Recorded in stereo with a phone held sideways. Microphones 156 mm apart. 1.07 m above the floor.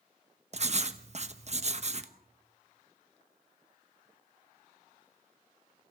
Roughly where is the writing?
Right.